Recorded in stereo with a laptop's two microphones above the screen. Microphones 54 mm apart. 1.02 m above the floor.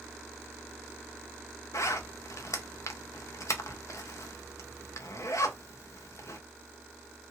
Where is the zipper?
65° left (ahead or behind), 0.5 m.